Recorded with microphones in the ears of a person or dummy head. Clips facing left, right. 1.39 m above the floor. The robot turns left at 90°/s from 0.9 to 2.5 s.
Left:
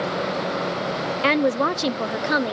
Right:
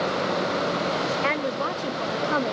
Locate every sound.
1.2 s a woman speaking: 125° left; by 2.5 s 10° left